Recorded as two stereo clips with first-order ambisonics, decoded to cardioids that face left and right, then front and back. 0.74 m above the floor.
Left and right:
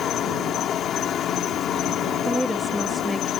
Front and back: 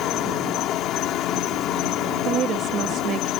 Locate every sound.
0.0 s an insect: 35° left
2.2 s a woman speaking: 175° right